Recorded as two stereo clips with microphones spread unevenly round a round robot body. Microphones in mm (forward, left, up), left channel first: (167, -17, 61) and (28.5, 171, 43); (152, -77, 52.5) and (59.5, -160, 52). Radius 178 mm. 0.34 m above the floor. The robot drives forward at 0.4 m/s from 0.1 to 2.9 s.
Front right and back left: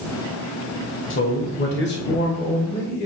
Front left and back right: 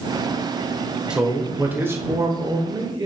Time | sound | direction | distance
1.1 | a man speaking | 55° right | 1.4 m